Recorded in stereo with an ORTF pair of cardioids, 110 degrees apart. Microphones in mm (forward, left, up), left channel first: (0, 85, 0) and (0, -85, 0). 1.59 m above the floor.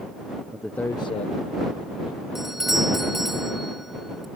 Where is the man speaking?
5° right; by 2.2 s 65° left.